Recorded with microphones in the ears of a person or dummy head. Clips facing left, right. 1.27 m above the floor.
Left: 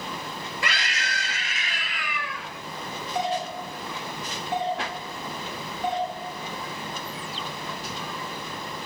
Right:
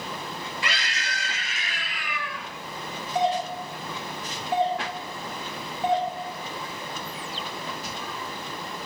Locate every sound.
0.6 s a scream: 45° left (ahead or behind), 4.5 m; by 2.5 s 75° left (ahead or behind), 4.5 m
3.1 s a doorbell: 60° right (ahead or behind), 4 m